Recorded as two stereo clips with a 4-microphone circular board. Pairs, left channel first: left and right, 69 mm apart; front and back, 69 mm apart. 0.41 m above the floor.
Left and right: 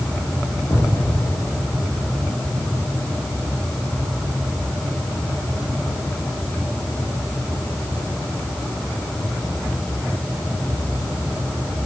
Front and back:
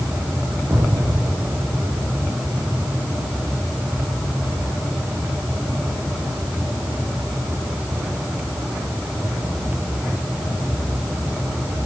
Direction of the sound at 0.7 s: 140° left.